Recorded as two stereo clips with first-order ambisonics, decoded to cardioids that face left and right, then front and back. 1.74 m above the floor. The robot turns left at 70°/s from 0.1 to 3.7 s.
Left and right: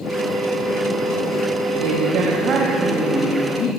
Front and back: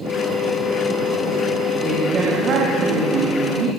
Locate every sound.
1.8 s a man speaking: 90° right, 4 m; by 3.7 s 135° left, 4 m